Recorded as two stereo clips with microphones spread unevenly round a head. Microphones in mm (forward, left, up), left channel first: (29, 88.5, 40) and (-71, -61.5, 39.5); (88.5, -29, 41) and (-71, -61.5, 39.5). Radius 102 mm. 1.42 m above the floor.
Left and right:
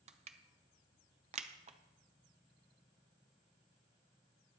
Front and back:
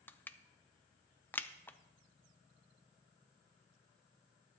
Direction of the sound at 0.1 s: 70° right.